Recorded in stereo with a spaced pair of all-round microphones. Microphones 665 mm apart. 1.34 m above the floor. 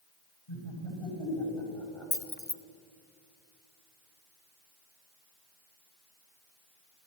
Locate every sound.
0.5 s laughter: 50° left (ahead or behind), 8.5 m
2.1 s keys jangling: 15° left (ahead or behind), 0.9 m